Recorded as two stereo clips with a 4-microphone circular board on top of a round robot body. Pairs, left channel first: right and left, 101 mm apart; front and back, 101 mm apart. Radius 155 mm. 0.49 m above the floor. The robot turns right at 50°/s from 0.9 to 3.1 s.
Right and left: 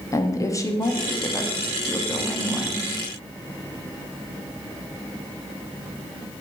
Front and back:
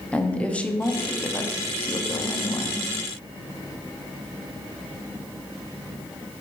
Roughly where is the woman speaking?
Right.